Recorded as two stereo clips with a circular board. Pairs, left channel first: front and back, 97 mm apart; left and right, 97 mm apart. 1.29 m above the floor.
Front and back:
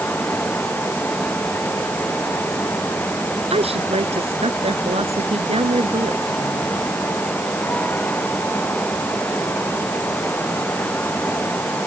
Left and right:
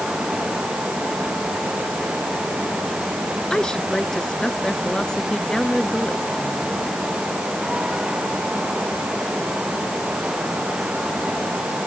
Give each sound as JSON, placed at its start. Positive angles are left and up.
{"t": 3.5, "sound": "a woman speaking", "azimuth_deg": 175}